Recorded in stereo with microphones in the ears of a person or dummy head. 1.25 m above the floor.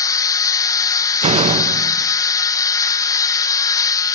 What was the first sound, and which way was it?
A machine running, 15° left (ahead or behind).